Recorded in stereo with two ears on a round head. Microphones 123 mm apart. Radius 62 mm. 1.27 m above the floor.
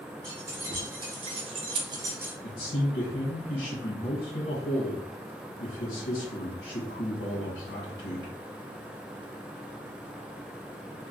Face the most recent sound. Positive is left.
turn(degrees=70)  # may be behind; listen again after turning